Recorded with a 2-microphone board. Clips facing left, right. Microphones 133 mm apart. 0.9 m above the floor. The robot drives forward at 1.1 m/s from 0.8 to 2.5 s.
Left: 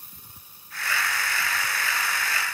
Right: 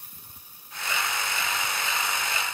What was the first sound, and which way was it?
Only background noise.